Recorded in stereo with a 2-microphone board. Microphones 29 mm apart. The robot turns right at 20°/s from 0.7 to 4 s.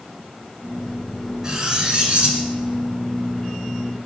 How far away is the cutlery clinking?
About 1.6 m.